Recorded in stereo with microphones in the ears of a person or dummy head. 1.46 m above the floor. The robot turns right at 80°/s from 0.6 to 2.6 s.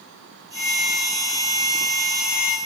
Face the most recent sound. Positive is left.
turn(degrees=-85)